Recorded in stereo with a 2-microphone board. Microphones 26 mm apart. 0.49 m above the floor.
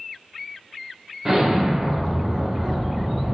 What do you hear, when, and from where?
1.2 s an explosion: 10° right (ahead or behind), 1.0 m